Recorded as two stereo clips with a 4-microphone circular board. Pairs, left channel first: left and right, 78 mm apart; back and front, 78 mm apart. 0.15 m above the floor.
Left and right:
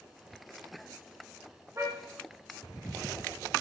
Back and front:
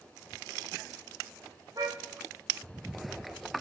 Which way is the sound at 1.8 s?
40° right.